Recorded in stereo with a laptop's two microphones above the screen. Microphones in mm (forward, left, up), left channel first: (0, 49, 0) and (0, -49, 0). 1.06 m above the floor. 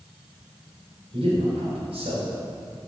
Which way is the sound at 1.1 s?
80° right.